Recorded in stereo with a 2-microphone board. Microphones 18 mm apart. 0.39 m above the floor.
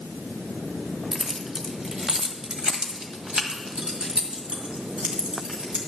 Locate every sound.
1.1 s keys jangling: 20° right (ahead or behind), 1.3 m; by 5.8 s 70° right (ahead or behind), 3 m